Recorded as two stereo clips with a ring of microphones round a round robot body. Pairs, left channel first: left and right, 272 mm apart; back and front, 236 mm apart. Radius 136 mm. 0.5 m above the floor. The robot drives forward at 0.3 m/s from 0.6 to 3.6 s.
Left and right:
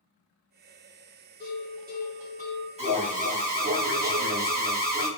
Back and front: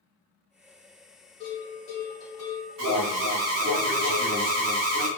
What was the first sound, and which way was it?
A bell, 110° right.